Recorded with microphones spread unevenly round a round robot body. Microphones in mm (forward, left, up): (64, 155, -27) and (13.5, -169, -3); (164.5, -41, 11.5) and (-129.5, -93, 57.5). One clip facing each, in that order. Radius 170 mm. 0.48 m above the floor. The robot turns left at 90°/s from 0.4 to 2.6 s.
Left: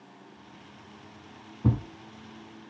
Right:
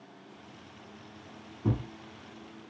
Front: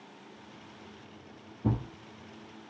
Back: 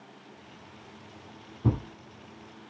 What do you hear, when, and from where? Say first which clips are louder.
1.6 s a thud: left 3 dB, back 2 dB; 120° left, 0.9 m; by 1.9 s 100° left, 0.9 m